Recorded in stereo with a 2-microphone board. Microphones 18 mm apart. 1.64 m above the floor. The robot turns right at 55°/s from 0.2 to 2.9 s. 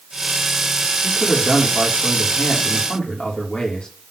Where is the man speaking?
20° right, 3.5 m; by 3.9 s 80° left, 3.5 m.